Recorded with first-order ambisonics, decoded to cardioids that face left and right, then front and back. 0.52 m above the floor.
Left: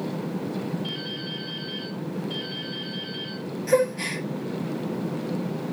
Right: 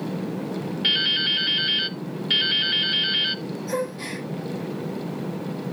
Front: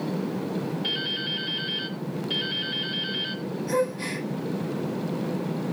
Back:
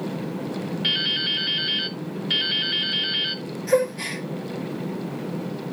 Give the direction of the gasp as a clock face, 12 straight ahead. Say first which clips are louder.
Left 7 dB, back 5 dB; 8 o'clock.